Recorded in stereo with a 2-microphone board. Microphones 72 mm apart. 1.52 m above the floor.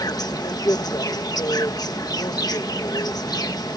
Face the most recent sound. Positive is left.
turn(degrees=70)  # may be behind; listen again after turning